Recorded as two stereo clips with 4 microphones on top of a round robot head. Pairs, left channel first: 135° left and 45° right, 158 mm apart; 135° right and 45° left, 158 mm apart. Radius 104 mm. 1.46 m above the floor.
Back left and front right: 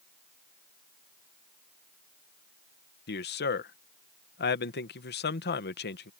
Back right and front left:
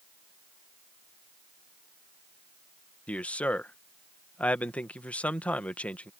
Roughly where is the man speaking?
Behind left.